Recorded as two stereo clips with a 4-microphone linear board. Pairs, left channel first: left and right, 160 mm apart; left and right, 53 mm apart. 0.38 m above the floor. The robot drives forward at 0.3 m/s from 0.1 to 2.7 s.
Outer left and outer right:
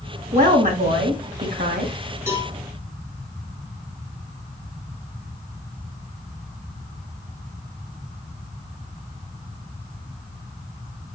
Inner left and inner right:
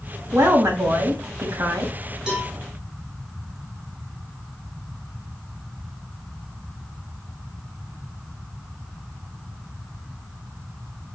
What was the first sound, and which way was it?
A woman speaking, 60° right (ahead or behind).